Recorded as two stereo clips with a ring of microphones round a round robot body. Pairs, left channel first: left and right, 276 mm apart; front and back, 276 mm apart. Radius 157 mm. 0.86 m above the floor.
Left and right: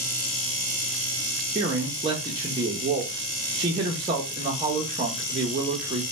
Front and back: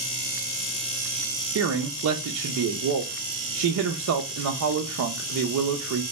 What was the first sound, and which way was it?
A man speaking, 160° right.